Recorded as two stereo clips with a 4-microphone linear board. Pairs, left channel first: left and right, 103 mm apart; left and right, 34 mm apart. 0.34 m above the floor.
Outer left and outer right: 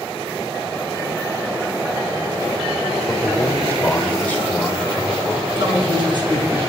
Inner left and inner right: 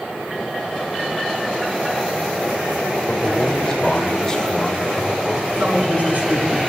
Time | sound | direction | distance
3.1 | a man speaking | 15° left (ahead or behind) | 1.4 m
5.6 | a man speaking | 50° right (ahead or behind) | 4.5 m